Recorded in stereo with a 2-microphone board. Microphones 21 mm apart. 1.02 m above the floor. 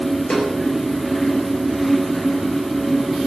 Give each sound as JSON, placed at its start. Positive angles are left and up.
{"t": 0.3, "sound": "a snare drum", "side_deg": 80, "distance_m": 4.5}